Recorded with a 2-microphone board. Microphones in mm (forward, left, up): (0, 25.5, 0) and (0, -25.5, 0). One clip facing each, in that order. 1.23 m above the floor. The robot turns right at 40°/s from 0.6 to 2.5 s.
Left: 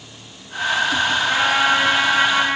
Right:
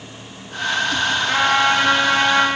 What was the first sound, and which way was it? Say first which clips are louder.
A trumpet: right 2 dB; 135° right.